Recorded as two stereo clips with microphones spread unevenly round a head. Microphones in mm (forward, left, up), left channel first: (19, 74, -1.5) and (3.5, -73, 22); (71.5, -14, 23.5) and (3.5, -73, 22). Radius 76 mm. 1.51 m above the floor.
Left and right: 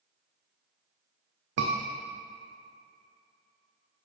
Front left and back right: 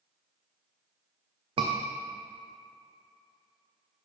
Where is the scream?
115° right, 0.5 m.